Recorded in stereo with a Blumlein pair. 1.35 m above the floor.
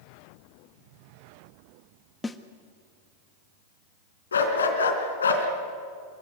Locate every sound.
2.2 s a snare drum: 10° left, 1.4 m
4.3 s a dog barking: 70° left, 3.5 m